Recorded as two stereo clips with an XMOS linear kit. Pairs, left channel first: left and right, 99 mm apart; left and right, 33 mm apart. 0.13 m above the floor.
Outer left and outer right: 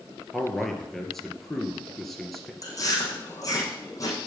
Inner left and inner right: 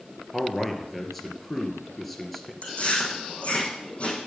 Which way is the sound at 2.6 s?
35° left (ahead or behind).